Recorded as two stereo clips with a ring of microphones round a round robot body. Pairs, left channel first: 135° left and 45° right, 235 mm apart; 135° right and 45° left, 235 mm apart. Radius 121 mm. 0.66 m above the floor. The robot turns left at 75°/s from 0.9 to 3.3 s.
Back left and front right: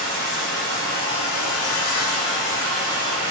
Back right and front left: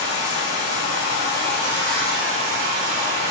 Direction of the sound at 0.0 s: 145° right.